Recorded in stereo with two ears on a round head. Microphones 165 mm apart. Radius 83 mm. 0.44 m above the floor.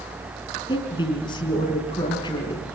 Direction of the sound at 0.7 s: 25° left (ahead or behind).